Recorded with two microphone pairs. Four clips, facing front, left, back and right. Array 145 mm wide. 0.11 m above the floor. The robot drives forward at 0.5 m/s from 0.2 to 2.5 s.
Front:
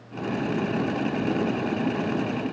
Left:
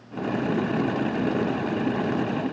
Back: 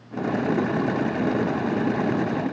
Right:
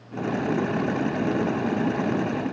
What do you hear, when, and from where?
Only background noise.